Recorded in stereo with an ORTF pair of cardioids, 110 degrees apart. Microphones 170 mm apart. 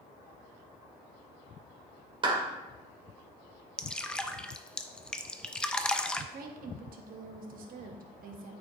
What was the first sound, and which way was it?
A clap, 30° right.